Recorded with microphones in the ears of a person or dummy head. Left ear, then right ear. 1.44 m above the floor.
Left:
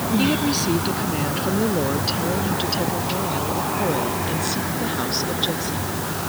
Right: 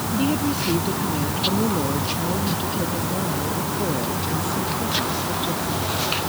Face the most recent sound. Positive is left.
turn(degrees=40)  # may be behind; listen again after turning